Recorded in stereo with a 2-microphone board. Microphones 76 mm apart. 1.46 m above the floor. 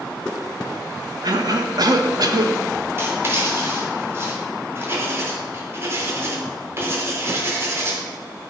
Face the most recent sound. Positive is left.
turn(degrees=-35)  # may be behind; listen again after turning